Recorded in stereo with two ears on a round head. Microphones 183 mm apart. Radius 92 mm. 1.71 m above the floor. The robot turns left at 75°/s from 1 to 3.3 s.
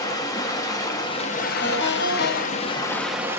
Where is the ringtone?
155° left, 1.4 m; by 2.9 s 55° left, 1.4 m.